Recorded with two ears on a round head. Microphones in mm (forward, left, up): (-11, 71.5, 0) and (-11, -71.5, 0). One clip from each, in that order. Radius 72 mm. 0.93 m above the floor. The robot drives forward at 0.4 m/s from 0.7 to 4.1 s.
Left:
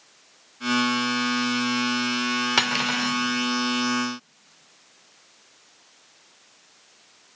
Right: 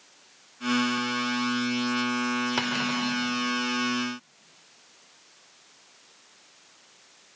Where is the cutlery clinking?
70° left (ahead or behind), 1.5 m; by 3.2 s 60° left (ahead or behind), 1.6 m.